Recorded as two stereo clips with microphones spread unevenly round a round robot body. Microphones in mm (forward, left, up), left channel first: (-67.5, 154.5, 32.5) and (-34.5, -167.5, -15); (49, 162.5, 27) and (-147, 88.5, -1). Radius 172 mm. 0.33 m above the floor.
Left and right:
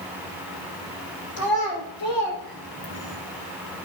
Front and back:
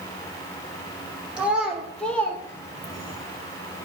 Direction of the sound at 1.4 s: 115° left.